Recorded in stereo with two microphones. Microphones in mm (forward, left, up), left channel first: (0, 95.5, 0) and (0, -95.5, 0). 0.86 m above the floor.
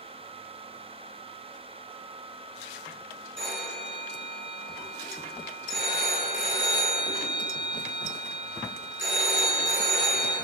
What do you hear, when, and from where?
3.4 s a phone ringing: 85° right, 1.1 m